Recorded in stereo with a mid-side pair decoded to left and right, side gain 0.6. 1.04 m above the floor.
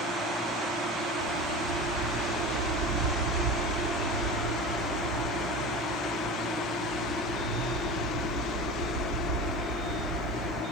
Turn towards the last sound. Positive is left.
turn(degrees=-65)